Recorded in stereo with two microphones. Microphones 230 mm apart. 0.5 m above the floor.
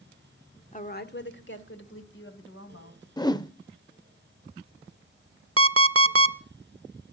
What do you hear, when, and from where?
0.7 s a woman speaking: 35° left (ahead or behind), 1.1 m; by 3.1 s 60° left (ahead or behind), 3.5 m
3.2 s a whoosh: 20° left (ahead or behind), 0.5 m
5.6 s an alarm clock: 80° right, 0.6 m